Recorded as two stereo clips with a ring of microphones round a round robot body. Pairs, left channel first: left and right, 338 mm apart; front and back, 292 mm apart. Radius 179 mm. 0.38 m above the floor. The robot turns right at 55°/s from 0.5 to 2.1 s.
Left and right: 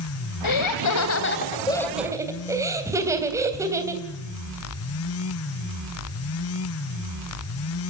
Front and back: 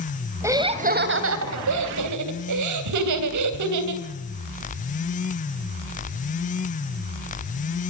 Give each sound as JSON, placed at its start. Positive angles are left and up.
{"t": 0.4, "sound": "laughter", "azimuth_deg": 100, "distance_m": 3.0}